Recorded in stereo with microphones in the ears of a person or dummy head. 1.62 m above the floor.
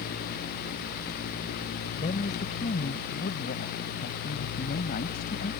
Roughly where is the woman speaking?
Left.